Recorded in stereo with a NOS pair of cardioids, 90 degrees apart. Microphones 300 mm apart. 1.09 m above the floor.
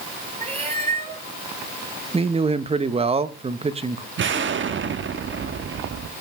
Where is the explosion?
40° right, 1.1 m.